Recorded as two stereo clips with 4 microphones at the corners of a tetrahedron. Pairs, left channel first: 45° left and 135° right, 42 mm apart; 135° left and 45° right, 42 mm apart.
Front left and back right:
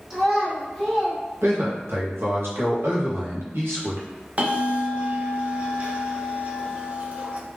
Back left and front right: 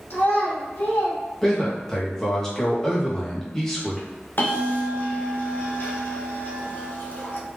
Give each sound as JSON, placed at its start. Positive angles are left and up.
{"t": 0.1, "sound": "a child speaking", "azimuth_deg": 150, "distance_m": 1.2}
{"t": 1.4, "sound": "a man speaking", "azimuth_deg": -145, "distance_m": 1.4}
{"t": 4.4, "sound": "a bell", "azimuth_deg": 170, "distance_m": 0.8}